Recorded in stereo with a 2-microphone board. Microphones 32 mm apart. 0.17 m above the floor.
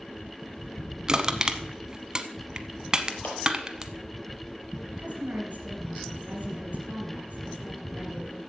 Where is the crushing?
25° right (ahead or behind), 0.8 m.